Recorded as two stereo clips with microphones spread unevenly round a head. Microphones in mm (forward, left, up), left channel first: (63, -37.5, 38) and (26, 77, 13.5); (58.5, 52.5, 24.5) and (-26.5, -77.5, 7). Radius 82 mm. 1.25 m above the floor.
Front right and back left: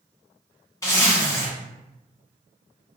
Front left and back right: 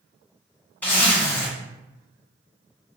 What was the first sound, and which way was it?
A zipper, 20° right.